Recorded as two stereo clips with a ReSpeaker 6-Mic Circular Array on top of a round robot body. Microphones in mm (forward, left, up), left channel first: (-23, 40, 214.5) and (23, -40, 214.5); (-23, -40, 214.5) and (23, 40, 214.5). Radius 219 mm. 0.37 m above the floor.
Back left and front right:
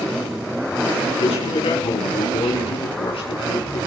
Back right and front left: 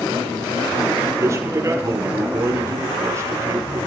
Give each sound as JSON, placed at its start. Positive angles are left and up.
{"t": 1.2, "sound": "a man speaking", "azimuth_deg": 120, "distance_m": 6.5}